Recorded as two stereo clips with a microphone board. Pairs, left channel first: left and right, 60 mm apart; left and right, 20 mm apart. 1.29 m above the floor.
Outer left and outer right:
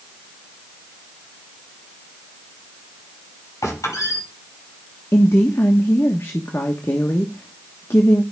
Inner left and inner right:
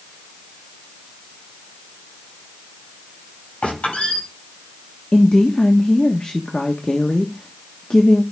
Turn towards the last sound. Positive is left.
turn(degrees=45)  # may be behind; listen again after turning